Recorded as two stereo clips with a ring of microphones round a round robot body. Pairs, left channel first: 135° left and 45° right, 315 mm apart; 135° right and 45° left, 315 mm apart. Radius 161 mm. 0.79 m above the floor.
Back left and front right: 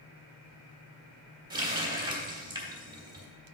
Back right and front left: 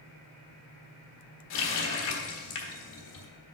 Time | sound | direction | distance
1.5 | a running tap | 120° right | 1.4 m